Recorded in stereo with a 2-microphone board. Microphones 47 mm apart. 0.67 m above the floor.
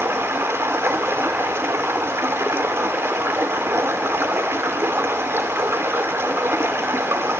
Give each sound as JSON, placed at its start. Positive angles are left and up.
{"t": 0.0, "sound": "running water", "side_deg": -70, "distance_m": 1.7}